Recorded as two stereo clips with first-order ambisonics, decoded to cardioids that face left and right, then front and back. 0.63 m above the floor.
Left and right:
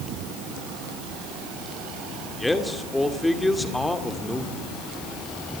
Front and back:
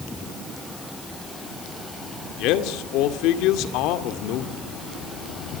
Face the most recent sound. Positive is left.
turn(degrees=5)